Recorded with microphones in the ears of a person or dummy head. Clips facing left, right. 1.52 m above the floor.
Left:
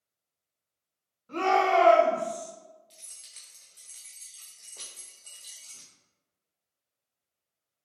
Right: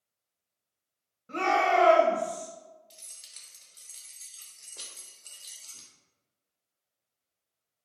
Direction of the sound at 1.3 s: 25° right (ahead or behind).